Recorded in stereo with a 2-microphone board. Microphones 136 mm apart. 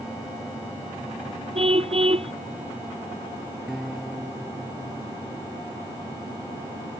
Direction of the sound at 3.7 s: Centre (ahead or behind).